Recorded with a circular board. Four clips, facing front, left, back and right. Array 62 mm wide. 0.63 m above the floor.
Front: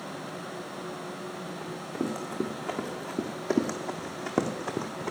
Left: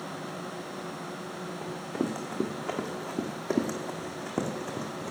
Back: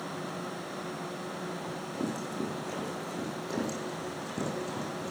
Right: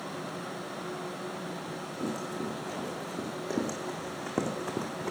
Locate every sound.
1.6 s running footsteps: 65° left, 3.5 m; by 5.1 s 25° right, 2.5 m